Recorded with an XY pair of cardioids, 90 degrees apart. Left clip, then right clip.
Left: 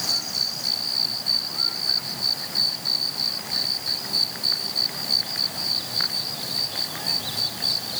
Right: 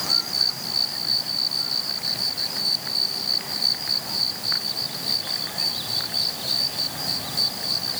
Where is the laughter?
No laughter in this recording.